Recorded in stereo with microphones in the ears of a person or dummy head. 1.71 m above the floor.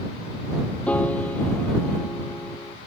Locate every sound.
0.9 s a piano: 10° left (ahead or behind)